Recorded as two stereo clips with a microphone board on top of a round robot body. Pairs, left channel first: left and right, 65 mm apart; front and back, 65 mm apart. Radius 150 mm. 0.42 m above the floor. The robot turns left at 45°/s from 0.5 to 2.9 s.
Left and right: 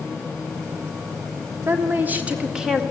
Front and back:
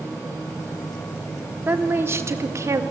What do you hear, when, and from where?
1.7 s a woman speaking: 125° right, 2.0 m; by 2.8 s straight behind, 2.0 m